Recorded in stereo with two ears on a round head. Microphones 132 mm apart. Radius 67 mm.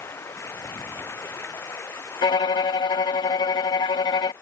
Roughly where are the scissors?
I don't hear scissors.